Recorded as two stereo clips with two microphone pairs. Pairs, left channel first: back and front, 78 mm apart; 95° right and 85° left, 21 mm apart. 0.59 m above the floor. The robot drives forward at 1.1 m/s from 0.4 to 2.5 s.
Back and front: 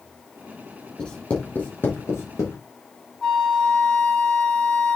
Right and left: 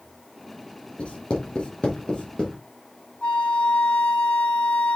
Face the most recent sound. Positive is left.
turn(degrees=-100)